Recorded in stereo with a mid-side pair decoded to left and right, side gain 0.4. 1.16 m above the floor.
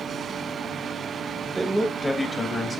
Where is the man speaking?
20° right, 1.0 m; by 2.8 s 45° left, 2 m.